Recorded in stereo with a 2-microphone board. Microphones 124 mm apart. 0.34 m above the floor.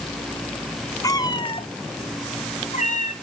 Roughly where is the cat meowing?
Left.